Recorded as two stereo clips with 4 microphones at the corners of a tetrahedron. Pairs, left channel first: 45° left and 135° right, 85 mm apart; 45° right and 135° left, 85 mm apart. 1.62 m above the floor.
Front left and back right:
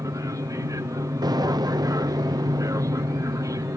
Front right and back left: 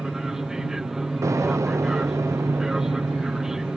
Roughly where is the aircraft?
Behind right.